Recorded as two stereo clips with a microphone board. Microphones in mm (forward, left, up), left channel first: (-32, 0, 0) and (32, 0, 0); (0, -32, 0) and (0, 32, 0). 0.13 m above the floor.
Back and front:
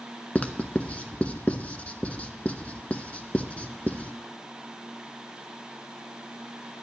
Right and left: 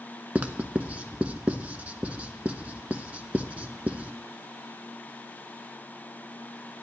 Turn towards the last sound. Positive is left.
turn(degrees=135)